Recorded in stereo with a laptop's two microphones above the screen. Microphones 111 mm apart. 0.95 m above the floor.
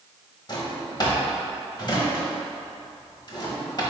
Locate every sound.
0.5 s a drawer: 40° left (ahead or behind), 0.9 m